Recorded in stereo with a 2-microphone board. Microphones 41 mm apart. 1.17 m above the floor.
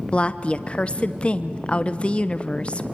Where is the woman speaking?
25° left (ahead or behind), 0.9 m.